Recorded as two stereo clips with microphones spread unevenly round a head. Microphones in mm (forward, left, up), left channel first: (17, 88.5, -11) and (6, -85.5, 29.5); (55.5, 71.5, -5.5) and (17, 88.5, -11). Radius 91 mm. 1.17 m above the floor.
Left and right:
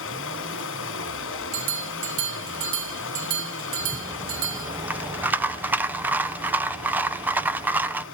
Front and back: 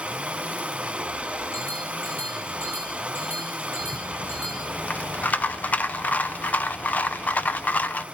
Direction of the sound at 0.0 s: 90° left.